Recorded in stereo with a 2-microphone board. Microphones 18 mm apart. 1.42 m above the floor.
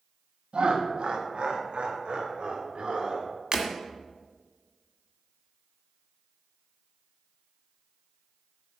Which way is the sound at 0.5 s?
75° right (ahead or behind).